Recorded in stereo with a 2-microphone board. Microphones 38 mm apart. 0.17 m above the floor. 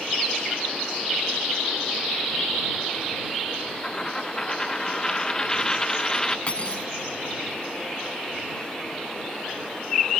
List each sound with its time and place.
3.8 s a dropped coin: 15° left (ahead or behind)
6.5 s cutlery clinking: 35° left (ahead or behind)